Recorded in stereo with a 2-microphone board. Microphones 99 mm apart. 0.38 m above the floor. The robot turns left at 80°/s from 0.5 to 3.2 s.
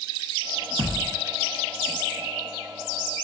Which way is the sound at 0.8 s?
130° right.